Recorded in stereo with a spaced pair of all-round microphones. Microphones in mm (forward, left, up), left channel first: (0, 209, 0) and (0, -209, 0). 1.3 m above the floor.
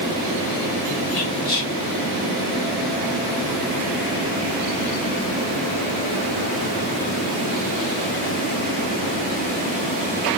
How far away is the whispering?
About 1.8 m.